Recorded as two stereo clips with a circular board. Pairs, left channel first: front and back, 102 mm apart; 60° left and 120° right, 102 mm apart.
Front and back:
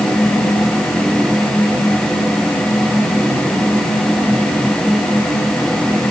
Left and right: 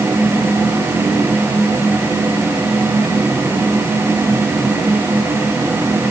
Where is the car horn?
No car horn in this recording.